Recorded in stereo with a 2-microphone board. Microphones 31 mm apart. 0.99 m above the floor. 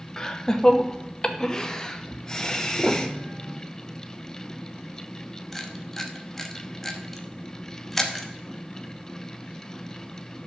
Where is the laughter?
15° left (ahead or behind), 1.2 m.